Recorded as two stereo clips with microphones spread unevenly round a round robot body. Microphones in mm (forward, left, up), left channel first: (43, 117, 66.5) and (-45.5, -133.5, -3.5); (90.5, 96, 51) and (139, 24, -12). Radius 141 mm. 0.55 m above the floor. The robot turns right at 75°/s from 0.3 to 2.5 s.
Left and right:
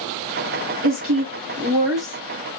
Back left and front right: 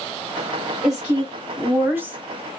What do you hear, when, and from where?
0.8 s a woman speaking: 115° right, 1.7 m; by 2.6 s 10° left, 1.7 m